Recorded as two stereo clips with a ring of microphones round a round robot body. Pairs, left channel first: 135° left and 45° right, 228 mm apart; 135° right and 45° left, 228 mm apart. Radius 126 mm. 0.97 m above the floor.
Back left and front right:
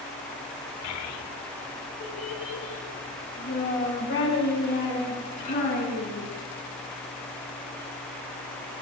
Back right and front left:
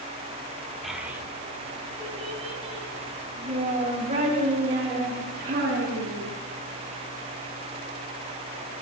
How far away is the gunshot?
No gunshot in this recording.